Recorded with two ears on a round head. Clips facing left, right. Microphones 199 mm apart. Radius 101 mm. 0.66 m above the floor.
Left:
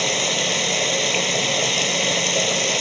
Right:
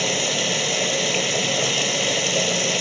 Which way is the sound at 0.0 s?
5° right (ahead or behind).